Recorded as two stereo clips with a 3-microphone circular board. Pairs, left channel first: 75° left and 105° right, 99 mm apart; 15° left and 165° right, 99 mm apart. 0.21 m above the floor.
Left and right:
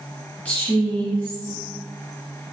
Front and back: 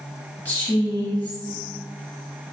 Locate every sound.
0.5 s a woman speaking: 40° left, 1.1 m